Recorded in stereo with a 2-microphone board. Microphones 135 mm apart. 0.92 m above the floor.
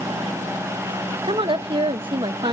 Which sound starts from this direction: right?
A woman speaking, at 1.2 s.